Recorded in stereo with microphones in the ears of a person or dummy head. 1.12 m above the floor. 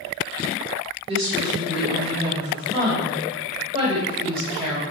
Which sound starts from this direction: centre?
A woman speaking, at 1.1 s.